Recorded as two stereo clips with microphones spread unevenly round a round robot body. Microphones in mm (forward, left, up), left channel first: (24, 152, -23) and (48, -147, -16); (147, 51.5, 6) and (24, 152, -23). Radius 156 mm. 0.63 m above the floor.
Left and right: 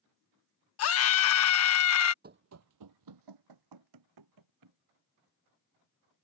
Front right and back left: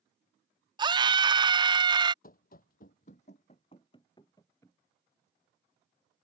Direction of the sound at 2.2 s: 25° right.